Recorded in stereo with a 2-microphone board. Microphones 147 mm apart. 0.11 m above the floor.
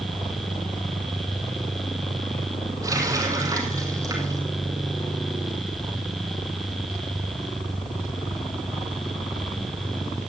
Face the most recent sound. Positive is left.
turn(degrees=-20)  # may be behind; listen again after turning